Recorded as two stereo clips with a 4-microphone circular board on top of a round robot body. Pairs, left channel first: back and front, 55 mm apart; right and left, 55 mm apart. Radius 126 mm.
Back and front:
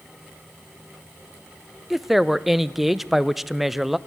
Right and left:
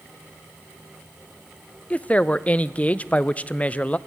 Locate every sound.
1.9 s a woman speaking: 85° right, 0.6 m